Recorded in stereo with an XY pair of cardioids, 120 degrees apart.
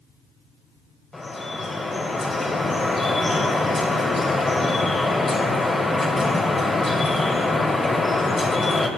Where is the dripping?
20° left, 2 m.